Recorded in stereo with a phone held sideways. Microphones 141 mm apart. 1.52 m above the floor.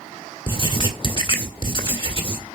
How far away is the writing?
About 1.5 m.